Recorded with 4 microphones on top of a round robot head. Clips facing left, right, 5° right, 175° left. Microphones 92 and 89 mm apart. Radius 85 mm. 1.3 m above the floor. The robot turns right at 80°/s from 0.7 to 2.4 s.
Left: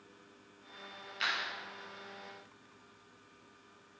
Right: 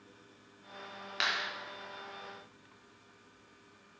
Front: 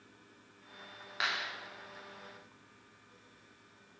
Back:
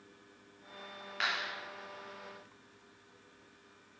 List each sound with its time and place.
1.2 s a clap: 80° right, 2.5 m; by 1.5 s 60° right, 2.5 m